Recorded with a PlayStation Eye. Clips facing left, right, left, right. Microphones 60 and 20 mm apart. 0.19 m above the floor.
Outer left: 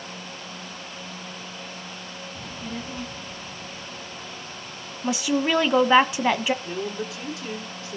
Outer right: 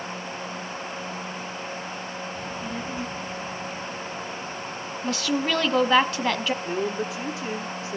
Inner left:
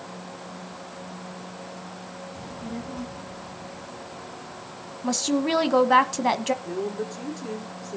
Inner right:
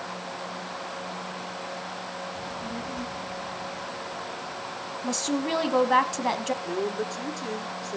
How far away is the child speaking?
About 0.6 m.